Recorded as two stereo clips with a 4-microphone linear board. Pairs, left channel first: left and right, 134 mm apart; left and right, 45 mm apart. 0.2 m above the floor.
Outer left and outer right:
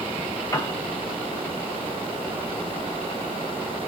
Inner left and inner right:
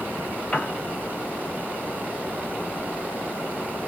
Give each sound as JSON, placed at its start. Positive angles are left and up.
{"t": 0.5, "sound": "a piano", "side_deg": 25, "distance_m": 0.8}